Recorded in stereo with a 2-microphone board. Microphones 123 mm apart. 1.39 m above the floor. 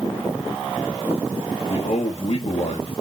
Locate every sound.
1.7 s a man speaking: 55° left (ahead or behind), 3 m